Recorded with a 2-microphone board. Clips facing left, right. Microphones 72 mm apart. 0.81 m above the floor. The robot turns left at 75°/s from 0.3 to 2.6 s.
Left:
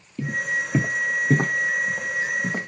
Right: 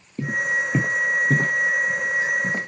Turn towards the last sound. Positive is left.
turn(degrees=10)  # may be behind; listen again after turning